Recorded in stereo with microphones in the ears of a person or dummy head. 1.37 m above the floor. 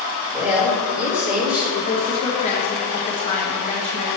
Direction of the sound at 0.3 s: 5° right (ahead or behind).